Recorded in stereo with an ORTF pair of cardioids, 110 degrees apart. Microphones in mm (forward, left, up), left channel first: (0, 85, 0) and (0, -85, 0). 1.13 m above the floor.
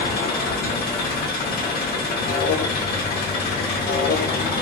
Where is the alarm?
60° left, 0.7 m.